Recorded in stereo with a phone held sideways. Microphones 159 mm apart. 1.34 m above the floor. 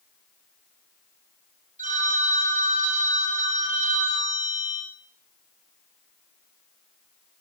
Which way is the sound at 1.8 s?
50° right (ahead or behind).